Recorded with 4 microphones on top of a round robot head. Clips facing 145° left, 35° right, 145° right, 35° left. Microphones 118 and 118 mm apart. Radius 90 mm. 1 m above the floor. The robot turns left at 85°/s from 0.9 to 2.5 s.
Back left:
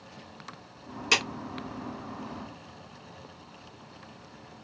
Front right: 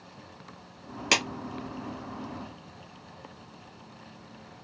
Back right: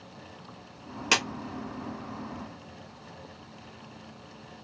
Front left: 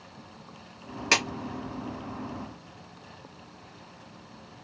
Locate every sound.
1.1 s a clap: 70° right, 1.7 m; by 1.2 s 80° right, 1.7 m